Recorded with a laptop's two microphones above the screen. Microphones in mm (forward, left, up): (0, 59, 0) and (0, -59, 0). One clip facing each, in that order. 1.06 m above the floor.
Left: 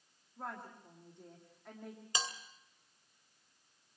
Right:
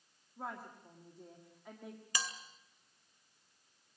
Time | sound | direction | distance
0.4 | a woman speaking | 5° right (ahead or behind) | 1.8 m
2.1 | a bell | 25° left (ahead or behind) | 2.5 m